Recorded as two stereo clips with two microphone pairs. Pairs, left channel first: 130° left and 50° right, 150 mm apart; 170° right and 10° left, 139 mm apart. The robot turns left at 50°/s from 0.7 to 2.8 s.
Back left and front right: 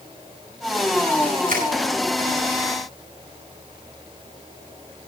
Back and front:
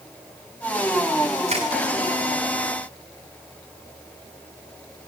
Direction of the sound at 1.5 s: 25° right.